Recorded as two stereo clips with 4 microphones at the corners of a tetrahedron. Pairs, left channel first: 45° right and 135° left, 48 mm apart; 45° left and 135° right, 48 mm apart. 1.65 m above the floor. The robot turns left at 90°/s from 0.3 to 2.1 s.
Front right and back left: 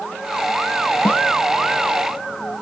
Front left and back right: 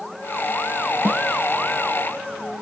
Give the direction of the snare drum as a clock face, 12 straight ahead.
3 o'clock.